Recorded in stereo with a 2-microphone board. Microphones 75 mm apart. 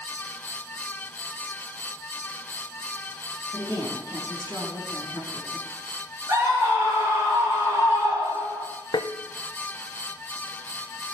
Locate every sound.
3.5 s a woman speaking: 50° right (ahead or behind), 5.5 m
6.3 s a scream: 45° right (ahead or behind), 6 m
8.9 s tapping: 65° left (ahead or behind), 0.6 m